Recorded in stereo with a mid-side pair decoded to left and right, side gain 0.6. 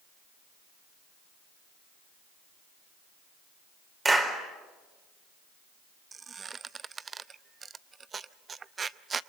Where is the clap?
20° right, 4 m.